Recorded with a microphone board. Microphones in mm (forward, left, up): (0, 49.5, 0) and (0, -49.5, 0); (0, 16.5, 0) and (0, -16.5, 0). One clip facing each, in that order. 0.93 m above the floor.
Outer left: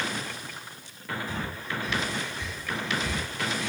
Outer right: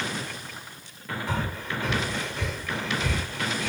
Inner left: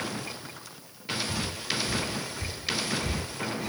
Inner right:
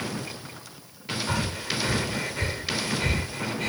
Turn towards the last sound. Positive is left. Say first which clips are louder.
# outer right 3 dB, inner right 3 dB
turn(degrees=-85)